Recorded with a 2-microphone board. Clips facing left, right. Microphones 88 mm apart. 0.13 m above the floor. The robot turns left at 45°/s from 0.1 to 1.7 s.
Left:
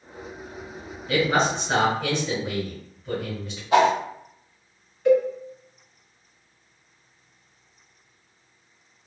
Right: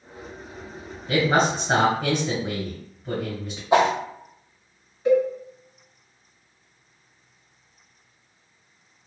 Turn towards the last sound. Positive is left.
turn(degrees=-10)  # may be behind; listen again after turning